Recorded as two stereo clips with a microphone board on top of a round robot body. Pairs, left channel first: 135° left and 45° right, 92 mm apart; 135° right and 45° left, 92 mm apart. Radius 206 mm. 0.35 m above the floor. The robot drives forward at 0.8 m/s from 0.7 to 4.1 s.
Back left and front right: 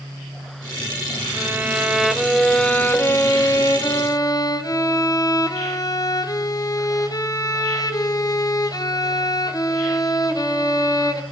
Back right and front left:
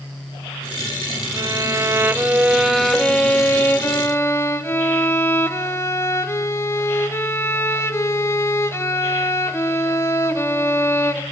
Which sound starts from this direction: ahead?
A violin, at 1.3 s.